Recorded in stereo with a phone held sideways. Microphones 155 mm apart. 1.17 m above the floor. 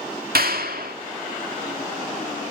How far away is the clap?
About 2 m.